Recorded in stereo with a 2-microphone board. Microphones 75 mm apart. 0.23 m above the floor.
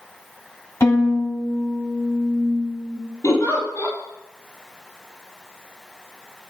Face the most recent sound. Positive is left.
turn(degrees=45)  # may be behind; listen again after turning